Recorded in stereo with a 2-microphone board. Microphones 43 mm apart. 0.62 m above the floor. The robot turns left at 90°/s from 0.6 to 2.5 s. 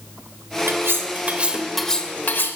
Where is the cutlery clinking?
85° right, 1.2 m; by 2.6 s 110° left, 1.2 m.